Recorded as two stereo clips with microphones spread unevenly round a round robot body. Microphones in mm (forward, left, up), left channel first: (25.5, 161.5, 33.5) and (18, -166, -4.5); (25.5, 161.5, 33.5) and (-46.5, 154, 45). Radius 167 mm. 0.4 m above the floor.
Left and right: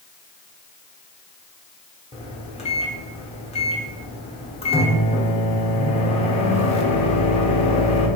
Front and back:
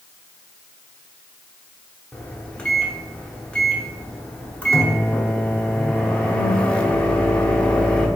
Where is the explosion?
I don't hear an explosion.